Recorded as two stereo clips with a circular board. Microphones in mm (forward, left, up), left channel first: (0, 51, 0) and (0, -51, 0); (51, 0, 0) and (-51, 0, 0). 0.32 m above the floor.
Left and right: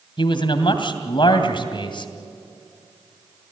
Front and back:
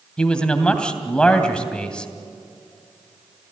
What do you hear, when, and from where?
0.2 s a man speaking: 80° left, 2.5 m